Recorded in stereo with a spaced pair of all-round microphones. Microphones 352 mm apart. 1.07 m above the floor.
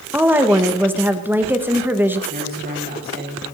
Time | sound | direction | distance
0.1 | a woman speaking | 5° right (ahead or behind) | 1.3 m
2.3 | a man speaking | 30° right (ahead or behind) | 7.5 m